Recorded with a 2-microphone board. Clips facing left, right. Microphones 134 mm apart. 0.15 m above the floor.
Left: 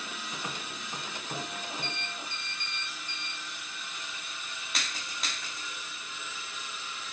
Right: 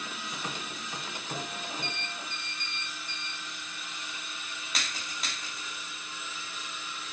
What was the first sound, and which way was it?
Only background noise.